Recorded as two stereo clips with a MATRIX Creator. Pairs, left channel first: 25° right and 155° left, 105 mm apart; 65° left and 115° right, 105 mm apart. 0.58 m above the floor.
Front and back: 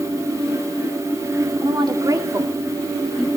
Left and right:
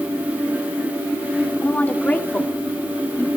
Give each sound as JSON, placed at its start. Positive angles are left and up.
{"t": 1.6, "sound": "a woman speaking", "azimuth_deg": 135, "distance_m": 1.8}